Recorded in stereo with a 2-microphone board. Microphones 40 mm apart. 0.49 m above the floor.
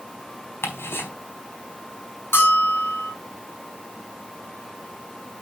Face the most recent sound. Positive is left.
turn(degrees=65)  # may be behind; listen again after turning